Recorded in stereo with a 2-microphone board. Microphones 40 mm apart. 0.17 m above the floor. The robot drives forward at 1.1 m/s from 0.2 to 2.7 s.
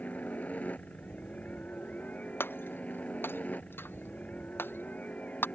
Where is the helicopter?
40° left (ahead or behind).